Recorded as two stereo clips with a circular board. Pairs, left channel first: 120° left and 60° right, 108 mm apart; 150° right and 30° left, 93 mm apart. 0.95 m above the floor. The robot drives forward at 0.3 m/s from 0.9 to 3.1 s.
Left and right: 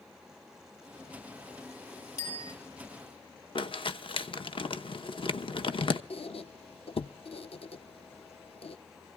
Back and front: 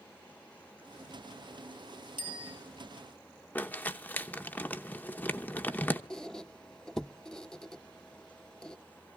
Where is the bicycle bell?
65° left, 4 m.